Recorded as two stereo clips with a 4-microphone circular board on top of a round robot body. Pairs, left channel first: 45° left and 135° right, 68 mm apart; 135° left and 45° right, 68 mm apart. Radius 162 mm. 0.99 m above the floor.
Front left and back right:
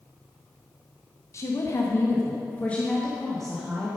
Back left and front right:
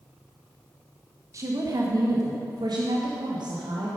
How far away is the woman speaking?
About 1.5 m.